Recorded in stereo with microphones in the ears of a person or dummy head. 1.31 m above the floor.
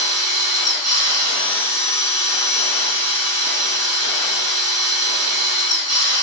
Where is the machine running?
50° right (ahead or behind), 1.5 m.